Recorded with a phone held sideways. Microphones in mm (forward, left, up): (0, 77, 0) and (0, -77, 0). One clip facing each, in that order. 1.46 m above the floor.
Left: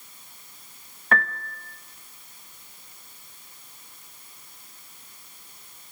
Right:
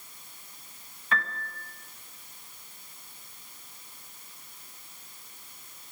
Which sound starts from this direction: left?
A piano, at 1.1 s.